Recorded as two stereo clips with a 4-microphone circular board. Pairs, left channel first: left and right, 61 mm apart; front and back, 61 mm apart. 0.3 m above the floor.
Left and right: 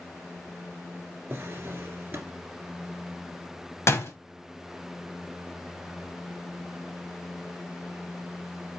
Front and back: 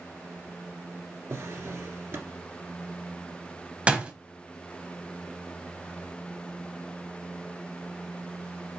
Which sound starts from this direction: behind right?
A drawer, at 1.3 s.